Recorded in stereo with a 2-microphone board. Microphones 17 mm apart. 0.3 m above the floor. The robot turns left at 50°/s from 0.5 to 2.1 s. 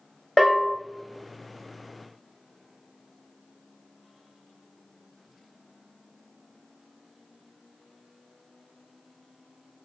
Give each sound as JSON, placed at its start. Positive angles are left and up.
{"t": 0.4, "sound": "a bell", "side_deg": 30, "distance_m": 1.1}